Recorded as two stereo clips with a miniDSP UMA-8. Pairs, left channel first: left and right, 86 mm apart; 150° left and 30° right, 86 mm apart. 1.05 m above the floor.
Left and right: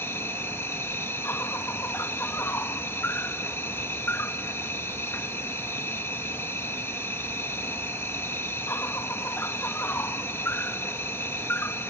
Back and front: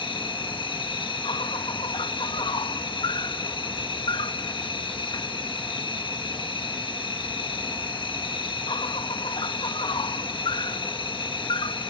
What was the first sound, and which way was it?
An insect, 150° left.